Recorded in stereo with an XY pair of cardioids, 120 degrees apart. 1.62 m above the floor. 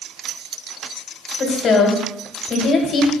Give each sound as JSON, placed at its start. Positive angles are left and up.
{"t": 1.4, "sound": "a woman speaking", "azimuth_deg": 50, "distance_m": 1.8}